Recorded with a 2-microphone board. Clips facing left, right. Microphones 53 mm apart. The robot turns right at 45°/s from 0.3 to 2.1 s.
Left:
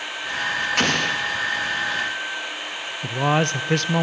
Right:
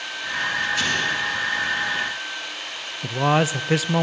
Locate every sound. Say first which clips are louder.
0.8 s an explosion: left 2 dB; 55° left (ahead or behind), 2 m; by 1.2 s 70° left (ahead or behind), 2 m
3.0 s a man speaking: right 1 dB; 5° right (ahead or behind), 0.5 m